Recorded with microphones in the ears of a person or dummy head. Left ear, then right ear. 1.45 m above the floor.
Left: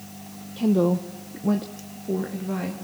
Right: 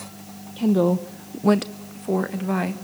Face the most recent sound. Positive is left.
turn(degrees=-35)  # may be behind; listen again after turning